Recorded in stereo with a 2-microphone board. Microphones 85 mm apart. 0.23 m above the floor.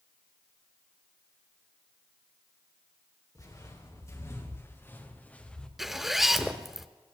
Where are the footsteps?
40° left (ahead or behind), 5.5 m; by 5.7 s 10° left (ahead or behind), 2.5 m.